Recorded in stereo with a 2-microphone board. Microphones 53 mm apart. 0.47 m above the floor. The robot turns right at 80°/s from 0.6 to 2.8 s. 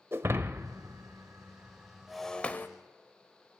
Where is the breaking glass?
50° right (ahead or behind), 1.1 m; by 2.7 s 40° left (ahead or behind), 1.1 m.